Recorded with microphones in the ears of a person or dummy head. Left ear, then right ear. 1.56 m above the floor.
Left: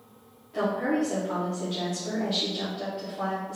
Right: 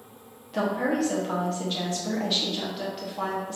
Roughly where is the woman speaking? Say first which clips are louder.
Right 1 dB; right.